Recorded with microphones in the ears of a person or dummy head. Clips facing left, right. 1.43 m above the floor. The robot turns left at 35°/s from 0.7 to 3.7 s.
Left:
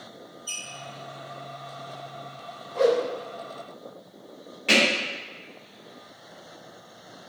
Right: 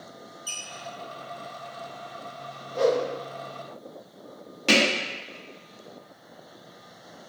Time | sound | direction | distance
0.5 | a squeak | 60° right (ahead or behind) | 0.7 m
2.7 | a whoosh | 25° right (ahead or behind) | 1.6 m
4.7 | hammering | 65° right (ahead or behind) | 0.7 m